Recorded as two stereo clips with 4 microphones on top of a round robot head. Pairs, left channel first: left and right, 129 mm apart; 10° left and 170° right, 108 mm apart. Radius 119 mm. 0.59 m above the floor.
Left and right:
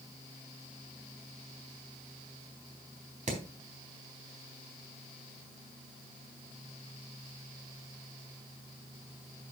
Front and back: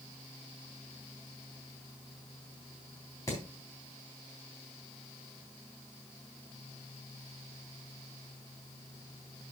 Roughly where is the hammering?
Ahead right.